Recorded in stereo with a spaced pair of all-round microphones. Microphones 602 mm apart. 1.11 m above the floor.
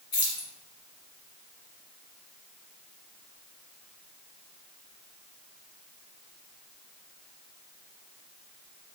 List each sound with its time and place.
0.1 s keys jangling: 90° left, 1.5 m